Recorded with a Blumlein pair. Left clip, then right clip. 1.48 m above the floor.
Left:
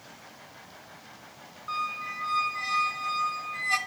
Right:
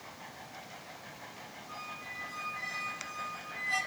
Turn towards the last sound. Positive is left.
turn(degrees=50)